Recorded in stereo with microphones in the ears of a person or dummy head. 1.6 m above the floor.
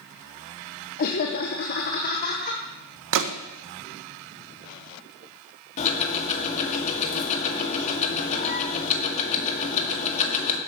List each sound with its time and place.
1.0 s laughter: 50° left (ahead or behind), 1.0 m
3.1 s a gunshot: 60° right (ahead or behind), 0.9 m
5.8 s ticking: 40° left (ahead or behind), 1.9 m